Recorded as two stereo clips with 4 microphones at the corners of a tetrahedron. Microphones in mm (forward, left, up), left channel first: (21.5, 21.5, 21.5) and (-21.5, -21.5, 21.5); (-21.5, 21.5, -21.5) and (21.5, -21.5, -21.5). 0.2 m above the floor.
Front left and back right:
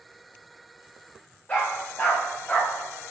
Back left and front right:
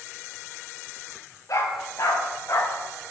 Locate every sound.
1.5 s a dog barking: 110° left, 9 m; by 2.8 s 105° left, 8.5 m